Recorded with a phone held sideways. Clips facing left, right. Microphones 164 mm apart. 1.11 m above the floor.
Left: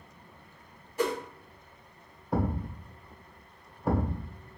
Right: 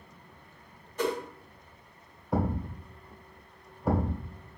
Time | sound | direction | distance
1.0 | a whoosh | 10° left (ahead or behind) | 1.4 m
2.3 | a thud | centre (ahead or behind) | 1.3 m